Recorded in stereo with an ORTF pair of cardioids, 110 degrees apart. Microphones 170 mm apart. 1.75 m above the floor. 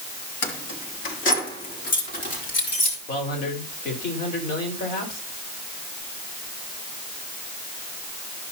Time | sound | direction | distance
0.4 | keys jangling | 60° left | 2.5 m
3.1 | a man speaking | 60° left | 5 m